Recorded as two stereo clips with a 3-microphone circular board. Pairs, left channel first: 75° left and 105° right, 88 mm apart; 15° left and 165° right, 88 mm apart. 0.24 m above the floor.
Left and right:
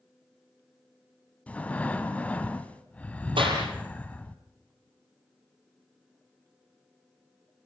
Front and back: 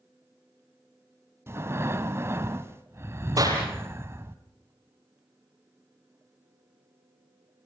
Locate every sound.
1.5 s breathing: 145° left, 1.3 m
3.4 s a clap: 115° right, 7 m